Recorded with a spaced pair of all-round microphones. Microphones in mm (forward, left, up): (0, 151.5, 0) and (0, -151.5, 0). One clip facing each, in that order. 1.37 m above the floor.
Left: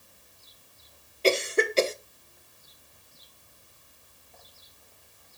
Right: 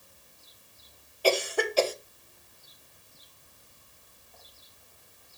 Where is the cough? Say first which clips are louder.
Left 2 dB; 25° left (ahead or behind), 0.9 m.